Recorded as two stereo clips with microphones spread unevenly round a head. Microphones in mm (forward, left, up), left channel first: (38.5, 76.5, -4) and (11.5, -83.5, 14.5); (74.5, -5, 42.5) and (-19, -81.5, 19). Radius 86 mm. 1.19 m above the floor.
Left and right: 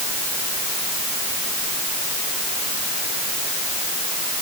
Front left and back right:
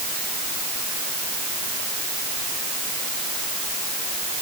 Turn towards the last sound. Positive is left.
No sound to turn to.